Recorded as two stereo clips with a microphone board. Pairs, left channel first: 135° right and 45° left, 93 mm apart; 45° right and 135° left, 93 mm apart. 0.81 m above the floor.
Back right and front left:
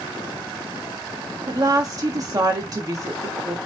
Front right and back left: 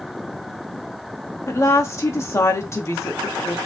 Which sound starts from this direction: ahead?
A woman speaking, at 1.5 s.